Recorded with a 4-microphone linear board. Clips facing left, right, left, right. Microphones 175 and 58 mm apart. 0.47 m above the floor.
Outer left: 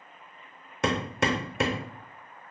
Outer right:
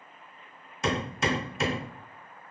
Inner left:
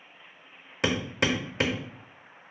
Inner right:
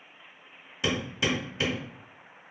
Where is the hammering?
60° left (ahead or behind), 0.7 m.